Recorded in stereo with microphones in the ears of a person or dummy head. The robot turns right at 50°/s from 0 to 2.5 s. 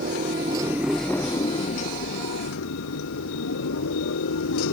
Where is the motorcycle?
50° right; by 4.7 s 75° left.